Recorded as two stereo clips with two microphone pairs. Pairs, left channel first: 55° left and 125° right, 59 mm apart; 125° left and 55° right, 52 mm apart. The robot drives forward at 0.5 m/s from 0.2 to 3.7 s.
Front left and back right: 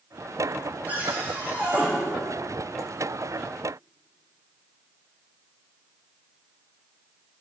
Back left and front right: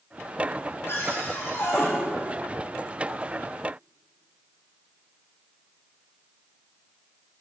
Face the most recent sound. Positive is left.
turn(degrees=170)